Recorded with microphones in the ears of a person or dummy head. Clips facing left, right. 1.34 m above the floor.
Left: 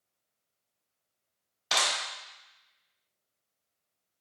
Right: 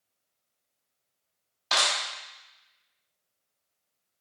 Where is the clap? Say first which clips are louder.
Right 2 dB; 10° left (ahead or behind), 1.1 m.